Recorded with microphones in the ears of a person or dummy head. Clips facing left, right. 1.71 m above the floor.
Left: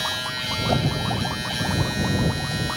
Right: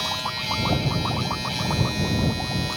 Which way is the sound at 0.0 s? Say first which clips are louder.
Right 1 dB; 15° left (ahead or behind).